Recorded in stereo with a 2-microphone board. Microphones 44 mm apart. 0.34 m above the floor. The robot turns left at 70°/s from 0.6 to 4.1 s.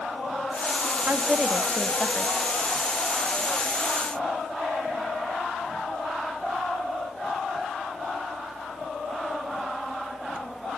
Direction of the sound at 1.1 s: 125° right.